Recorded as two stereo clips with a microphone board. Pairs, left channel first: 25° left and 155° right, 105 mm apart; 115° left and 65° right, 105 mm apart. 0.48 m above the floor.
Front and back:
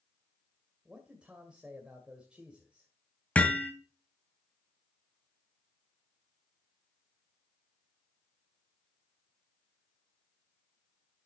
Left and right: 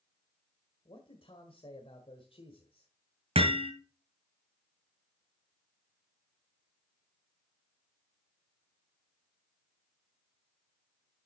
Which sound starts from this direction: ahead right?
Hammering, at 3.4 s.